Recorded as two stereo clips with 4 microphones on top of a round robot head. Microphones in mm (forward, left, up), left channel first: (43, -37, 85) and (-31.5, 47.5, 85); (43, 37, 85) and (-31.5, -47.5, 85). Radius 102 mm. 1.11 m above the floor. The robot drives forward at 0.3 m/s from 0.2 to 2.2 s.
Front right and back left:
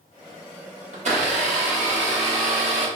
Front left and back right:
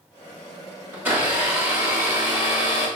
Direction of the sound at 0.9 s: 155° left.